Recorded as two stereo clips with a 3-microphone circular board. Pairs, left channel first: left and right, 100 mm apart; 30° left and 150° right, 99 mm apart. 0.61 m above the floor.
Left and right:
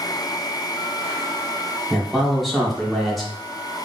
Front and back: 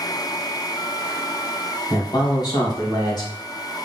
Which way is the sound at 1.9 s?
Straight ahead.